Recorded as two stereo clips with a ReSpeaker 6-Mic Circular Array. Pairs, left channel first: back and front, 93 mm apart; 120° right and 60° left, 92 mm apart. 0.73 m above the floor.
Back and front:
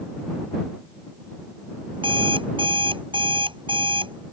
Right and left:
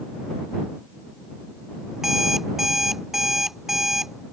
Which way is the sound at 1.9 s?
25° right.